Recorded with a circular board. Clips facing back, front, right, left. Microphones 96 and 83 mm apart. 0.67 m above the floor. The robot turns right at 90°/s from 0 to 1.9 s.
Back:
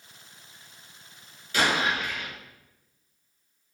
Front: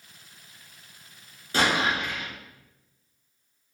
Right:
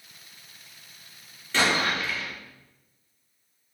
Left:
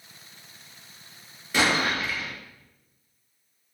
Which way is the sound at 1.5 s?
20° left.